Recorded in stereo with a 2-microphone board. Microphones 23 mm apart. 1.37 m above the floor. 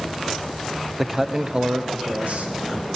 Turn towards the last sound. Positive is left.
turn(degrees=-80)